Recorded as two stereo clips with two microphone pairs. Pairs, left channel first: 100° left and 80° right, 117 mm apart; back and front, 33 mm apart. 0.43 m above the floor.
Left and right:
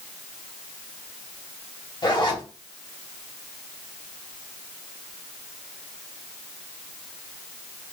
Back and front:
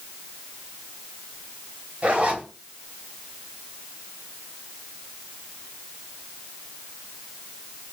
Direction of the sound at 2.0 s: 55° left.